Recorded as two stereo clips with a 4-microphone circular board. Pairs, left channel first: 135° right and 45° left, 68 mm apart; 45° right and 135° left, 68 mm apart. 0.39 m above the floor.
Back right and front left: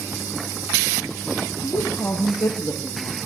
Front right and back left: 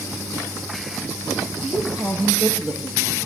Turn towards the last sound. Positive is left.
turn(degrees=-155)